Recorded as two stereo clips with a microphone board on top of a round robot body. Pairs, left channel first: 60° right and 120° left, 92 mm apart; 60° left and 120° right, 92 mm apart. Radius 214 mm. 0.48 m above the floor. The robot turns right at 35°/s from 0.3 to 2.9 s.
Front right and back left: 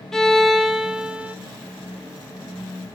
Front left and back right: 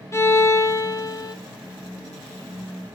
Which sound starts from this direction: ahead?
A violin, at 0.1 s.